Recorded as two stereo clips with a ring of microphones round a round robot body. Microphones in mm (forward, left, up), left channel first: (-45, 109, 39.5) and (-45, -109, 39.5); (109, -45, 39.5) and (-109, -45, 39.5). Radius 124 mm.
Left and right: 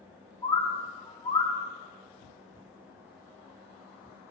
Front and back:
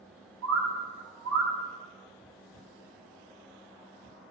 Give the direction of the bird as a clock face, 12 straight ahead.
7 o'clock.